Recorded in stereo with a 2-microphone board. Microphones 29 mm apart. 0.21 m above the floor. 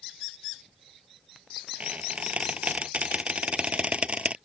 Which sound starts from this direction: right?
A squeak, at 1.8 s.